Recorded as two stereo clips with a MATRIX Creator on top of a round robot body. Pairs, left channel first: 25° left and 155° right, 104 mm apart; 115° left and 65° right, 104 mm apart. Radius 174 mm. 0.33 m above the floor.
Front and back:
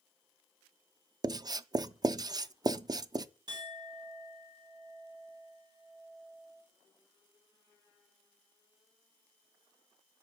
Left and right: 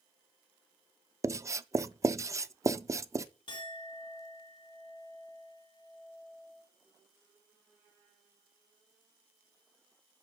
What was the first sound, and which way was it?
Writing, 120° right.